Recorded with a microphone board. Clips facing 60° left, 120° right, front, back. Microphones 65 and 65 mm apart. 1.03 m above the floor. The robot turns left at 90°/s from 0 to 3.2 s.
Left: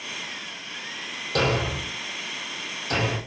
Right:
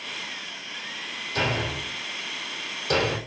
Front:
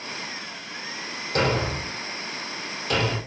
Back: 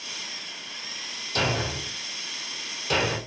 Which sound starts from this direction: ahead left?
A thud, at 1.4 s.